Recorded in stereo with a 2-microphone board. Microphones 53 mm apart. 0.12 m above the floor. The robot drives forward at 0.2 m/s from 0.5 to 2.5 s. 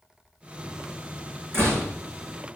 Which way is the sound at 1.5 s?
60° right (ahead or behind).